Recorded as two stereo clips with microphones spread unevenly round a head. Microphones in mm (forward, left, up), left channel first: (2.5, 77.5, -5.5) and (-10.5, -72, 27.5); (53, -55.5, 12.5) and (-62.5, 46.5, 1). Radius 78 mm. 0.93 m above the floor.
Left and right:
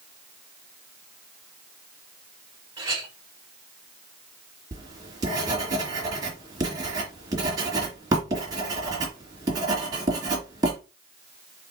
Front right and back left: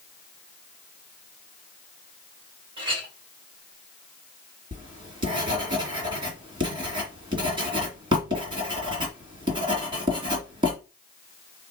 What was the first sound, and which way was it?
A clink, 165° right.